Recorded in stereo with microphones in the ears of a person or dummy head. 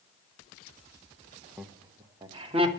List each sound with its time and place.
1.6 s laughter: 5° right (ahead or behind), 0.7 m; by 2.7 s 35° right (ahead or behind), 1.4 m